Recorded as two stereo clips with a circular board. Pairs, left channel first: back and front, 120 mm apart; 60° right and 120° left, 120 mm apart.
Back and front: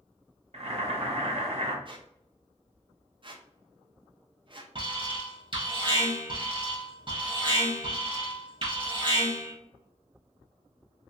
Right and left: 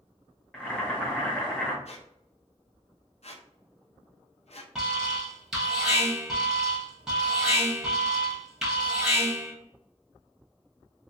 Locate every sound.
0.5 s boiling: 20° left, 0.9 m
1.9 s a squeak: 40° right, 0.6 m
4.8 s an alarm: 35° left, 1.4 m